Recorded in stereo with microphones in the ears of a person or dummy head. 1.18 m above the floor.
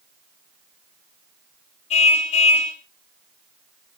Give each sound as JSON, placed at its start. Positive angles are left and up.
{"t": 1.9, "sound": "a car horn", "side_deg": 40, "distance_m": 2.5}